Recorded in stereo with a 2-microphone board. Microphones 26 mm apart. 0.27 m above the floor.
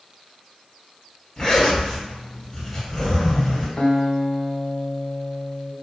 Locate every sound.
1.4 s a zipper: 25° left (ahead or behind), 1.5 m
3.8 s a guitar: 45° left (ahead or behind), 0.6 m